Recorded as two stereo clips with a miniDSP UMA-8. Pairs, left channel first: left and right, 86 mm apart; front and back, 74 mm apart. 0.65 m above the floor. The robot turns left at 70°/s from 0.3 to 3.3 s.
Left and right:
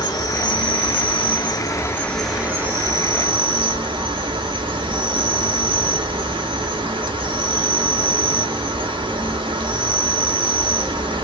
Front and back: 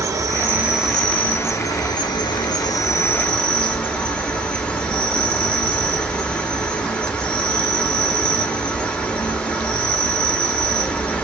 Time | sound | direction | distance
0.0 | an insect | 135° left | 0.8 m